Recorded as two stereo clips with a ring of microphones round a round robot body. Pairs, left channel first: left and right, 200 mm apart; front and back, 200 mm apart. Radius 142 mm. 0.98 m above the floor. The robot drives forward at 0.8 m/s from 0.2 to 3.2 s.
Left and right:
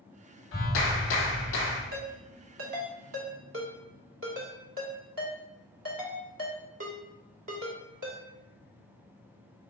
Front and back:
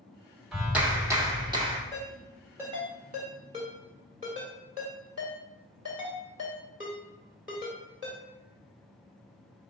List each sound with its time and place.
0.5 s a clap: 90° left, 2 m; by 1.8 s 115° left, 2.5 m
1.9 s a ringtone: 80° right, 1.6 m; by 8.2 s 115° right, 1.7 m